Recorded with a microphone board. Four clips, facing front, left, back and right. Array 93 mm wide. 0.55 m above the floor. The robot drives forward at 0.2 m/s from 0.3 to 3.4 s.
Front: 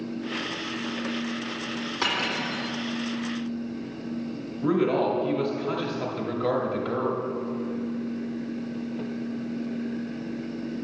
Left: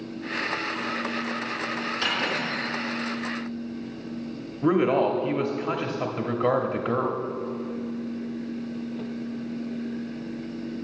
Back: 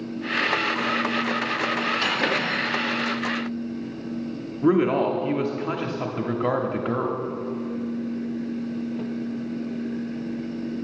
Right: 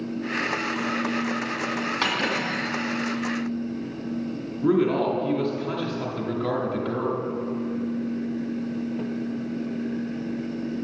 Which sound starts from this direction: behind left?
A man speaking, at 4.6 s.